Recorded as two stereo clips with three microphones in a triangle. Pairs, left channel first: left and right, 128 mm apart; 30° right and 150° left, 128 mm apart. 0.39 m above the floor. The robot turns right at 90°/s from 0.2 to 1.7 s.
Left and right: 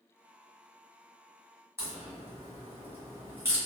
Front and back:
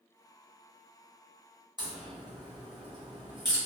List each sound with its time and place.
1.8 s a crack: 160° right, 1.7 m